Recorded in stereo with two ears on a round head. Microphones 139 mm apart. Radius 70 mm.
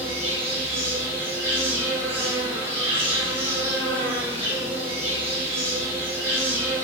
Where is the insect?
15° right (ahead or behind), 1.3 m.